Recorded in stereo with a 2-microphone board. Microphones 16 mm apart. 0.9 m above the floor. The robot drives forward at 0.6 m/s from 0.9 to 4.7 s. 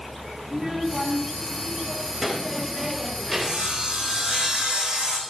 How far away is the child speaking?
About 4.5 m.